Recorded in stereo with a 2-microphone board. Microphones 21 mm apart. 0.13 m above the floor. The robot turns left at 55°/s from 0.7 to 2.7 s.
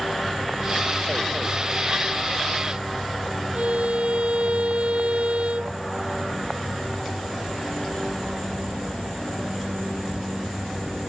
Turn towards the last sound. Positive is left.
turn(degrees=-70)  # may be behind; listen again after turning